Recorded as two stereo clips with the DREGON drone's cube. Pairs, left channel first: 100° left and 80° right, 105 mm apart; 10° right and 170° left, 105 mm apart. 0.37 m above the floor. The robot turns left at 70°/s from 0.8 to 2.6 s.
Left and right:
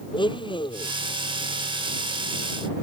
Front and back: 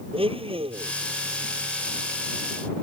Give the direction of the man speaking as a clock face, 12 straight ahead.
No man speaking in this recording.